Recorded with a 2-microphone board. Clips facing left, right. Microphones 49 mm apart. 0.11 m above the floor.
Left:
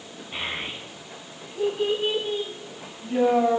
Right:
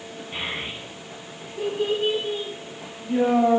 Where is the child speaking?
5° right (ahead or behind), 5.5 m; by 3.6 s 5° left (ahead or behind), 4 m.